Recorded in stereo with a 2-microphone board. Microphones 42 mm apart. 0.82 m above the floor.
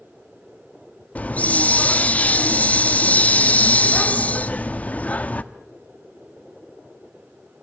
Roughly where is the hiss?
Left.